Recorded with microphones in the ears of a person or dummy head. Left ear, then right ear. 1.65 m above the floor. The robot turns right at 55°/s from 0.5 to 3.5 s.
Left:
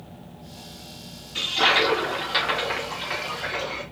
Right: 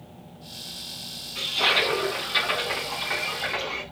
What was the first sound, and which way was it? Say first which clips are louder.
A toilet flushing: left 2 dB; 100° left.